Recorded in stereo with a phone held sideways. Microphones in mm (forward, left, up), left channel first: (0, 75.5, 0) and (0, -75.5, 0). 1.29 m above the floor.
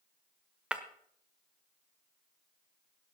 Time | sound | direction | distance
0.7 | breaking glass | 5° right (ahead or behind) | 1.0 m